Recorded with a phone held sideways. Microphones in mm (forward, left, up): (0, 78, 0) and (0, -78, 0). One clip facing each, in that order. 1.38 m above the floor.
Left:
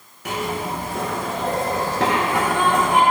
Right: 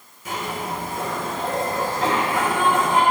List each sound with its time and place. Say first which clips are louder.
0.2 s a zipper: left 3 dB; 70° left (ahead or behind), 1.0 m